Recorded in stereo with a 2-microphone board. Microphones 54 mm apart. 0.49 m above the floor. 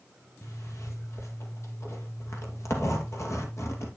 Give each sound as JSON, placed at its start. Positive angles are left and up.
{"t": 0.4, "sound": "a zipper", "side_deg": 65, "distance_m": 2.5}